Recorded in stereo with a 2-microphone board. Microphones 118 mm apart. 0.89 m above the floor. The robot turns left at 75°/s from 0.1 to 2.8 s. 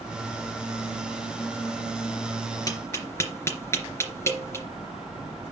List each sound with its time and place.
2.7 s tapping: 30° left (ahead or behind), 3 m; by 4.7 s 20° left (ahead or behind), 3 m